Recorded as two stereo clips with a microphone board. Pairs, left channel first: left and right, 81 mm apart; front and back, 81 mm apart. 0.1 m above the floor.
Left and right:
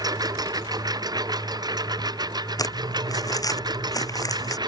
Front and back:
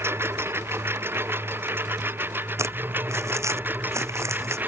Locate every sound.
0.0 s a lawn mower: 125° right; by 4.7 s 115° right
2.6 s crumpling: 130° left